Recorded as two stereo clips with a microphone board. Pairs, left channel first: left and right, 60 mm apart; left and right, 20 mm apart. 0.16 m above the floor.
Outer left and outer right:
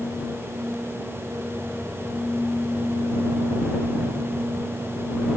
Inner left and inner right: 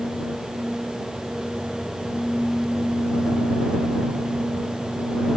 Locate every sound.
Only background noise.